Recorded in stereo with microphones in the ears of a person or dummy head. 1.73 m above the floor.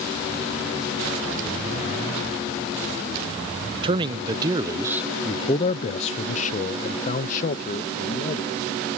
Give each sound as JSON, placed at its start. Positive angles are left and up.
{"t": 3.8, "sound": "a man speaking", "side_deg": -30}